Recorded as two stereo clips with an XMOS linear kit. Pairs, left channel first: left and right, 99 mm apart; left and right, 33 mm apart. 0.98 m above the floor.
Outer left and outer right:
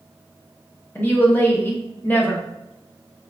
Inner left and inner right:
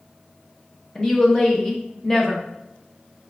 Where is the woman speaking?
20° left (ahead or behind), 0.8 m.